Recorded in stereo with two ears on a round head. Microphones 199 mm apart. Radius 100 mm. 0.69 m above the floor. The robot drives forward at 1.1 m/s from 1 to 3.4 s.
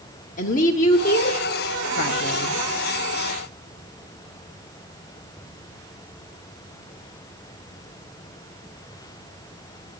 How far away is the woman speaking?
About 1.1 m.